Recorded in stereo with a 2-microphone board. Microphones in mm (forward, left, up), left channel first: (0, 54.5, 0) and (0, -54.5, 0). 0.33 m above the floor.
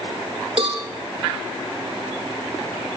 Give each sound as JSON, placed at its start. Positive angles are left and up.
{"t": 0.6, "sound": "a cowbell", "side_deg": -65, "distance_m": 5.5}